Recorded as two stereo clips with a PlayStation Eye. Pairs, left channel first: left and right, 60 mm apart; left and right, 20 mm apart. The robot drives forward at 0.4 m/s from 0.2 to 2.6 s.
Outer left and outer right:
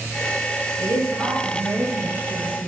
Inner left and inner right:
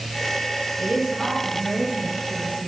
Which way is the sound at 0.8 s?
50° right (ahead or behind).